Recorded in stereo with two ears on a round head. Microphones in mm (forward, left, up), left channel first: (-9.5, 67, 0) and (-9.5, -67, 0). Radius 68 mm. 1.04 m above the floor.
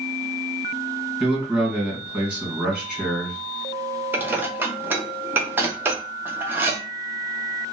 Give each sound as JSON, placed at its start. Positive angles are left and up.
{"t": 1.2, "sound": "a man speaking", "side_deg": -10, "distance_m": 1.9}
{"t": 4.1, "sound": "dishes clattering", "side_deg": -15, "distance_m": 0.7}